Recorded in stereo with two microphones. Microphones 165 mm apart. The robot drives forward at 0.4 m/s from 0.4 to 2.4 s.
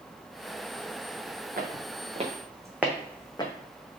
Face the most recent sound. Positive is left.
turn(degrees=30)  # may be behind; listen again after turning